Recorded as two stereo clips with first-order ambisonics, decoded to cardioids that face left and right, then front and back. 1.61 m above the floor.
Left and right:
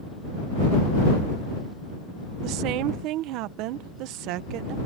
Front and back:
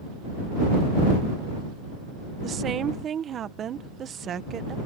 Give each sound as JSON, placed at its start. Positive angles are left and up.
{"t": 2.4, "sound": "a woman speaking", "azimuth_deg": -120}